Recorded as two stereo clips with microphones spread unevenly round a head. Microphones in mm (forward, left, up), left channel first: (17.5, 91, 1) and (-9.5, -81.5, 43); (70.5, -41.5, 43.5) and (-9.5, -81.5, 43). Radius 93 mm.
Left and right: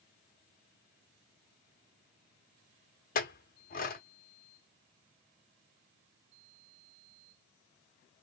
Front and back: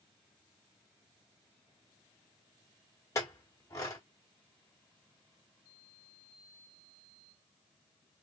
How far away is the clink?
About 0.7 m.